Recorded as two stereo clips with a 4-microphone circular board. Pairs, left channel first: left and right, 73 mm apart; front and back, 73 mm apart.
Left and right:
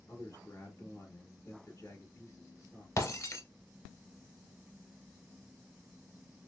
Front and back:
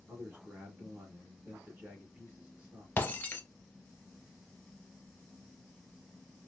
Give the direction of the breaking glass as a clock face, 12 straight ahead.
10 o'clock.